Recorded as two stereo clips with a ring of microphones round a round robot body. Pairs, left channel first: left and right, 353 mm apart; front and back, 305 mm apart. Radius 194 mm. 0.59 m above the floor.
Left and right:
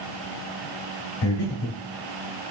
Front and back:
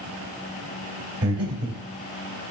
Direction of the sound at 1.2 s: 135° left.